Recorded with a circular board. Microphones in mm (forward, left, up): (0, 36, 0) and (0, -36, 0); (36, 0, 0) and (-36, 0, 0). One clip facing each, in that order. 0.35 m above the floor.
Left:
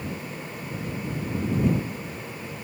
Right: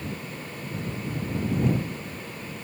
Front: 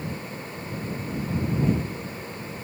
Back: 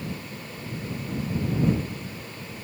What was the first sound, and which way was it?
Only background noise.